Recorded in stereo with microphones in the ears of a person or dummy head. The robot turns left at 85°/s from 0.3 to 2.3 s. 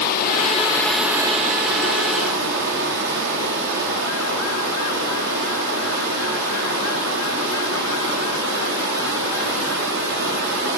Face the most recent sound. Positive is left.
turn(degrees=-110)